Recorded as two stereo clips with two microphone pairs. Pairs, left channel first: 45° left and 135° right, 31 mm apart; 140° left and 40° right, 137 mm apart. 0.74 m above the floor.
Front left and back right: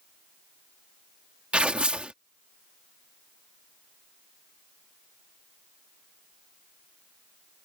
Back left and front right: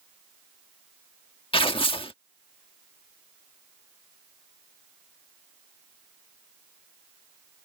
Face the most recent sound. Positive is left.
turn(degrees=180)